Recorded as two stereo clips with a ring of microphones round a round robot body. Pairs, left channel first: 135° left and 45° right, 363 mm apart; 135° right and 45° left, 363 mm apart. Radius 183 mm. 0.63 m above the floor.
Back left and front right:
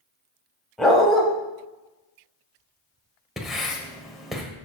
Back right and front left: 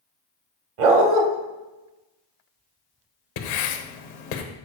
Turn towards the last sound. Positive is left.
turn(degrees=-135)